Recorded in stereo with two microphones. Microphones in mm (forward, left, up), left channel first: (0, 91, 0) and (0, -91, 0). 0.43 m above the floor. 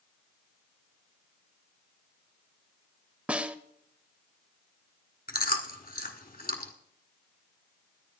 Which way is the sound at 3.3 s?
5° right (ahead or behind).